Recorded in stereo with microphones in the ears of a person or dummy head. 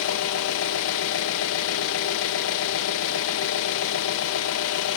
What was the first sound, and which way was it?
An engine running, 75° left (ahead or behind).